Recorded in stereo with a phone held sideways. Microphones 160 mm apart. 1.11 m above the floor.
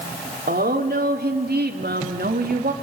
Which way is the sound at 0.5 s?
75° right (ahead or behind).